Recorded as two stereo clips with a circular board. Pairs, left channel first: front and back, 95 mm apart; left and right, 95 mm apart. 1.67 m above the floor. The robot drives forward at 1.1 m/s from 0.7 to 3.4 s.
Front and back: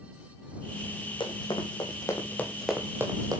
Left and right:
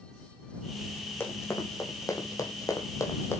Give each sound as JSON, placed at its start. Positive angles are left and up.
{"t": 1.2, "sound": "running footsteps", "azimuth_deg": 25, "distance_m": 4.0}